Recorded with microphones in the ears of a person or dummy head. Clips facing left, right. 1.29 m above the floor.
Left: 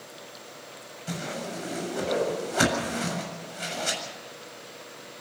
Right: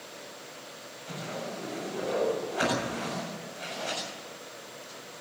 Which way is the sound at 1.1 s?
60° left (ahead or behind).